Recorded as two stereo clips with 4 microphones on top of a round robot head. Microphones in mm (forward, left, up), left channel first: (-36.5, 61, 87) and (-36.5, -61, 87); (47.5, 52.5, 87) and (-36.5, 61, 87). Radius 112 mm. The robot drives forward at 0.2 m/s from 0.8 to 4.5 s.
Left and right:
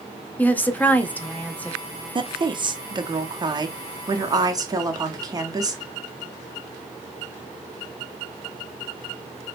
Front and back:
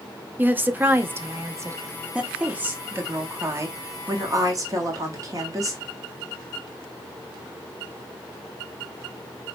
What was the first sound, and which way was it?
A woman speaking, 145° left.